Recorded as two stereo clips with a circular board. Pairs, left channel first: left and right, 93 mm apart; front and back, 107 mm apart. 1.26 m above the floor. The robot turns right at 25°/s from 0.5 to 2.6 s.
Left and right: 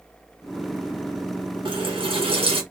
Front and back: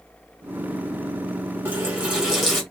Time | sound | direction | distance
1.6 | a running tap | 115° right | 1.2 m